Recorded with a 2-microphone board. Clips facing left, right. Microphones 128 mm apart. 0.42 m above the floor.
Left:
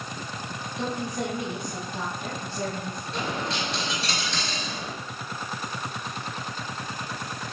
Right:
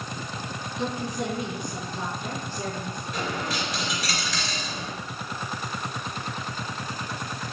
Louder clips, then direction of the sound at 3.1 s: Even; 25° left (ahead or behind).